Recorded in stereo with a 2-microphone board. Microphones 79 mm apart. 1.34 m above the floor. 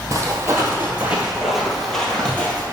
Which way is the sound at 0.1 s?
35° right (ahead or behind).